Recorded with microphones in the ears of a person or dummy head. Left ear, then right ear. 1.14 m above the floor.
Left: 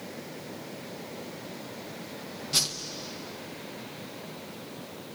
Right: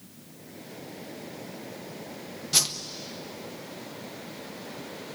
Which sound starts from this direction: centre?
A whoosh, at 2.5 s.